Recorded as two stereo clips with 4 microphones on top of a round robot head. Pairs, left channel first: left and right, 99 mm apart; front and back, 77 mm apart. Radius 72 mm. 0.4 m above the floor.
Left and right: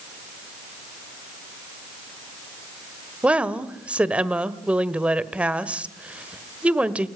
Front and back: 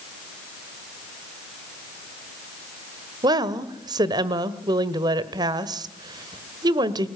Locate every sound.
3.2 s a woman speaking: 165° right, 1.6 m